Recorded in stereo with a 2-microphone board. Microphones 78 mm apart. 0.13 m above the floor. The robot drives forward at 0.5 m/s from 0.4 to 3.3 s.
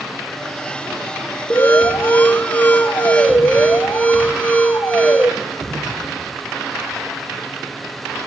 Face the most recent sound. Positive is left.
turn(degrees=20)  # may be behind; listen again after turning